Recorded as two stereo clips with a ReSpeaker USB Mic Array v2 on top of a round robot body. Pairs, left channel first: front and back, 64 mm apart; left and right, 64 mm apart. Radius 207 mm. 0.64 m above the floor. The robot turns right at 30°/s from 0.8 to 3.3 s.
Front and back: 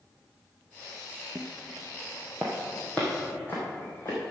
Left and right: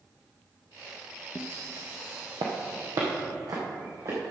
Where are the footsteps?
130° left, 0.7 m; by 4.3 s 60° right, 4.5 m.